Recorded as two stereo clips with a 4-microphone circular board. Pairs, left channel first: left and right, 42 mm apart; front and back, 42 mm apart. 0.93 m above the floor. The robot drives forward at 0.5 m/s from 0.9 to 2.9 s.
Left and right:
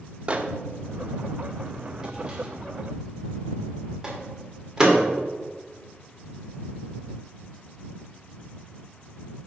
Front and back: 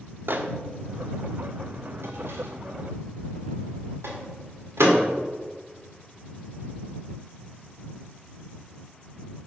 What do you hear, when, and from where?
0.3 s a microwave: 155° right, 0.6 m; by 5.0 s 170° right, 1.5 m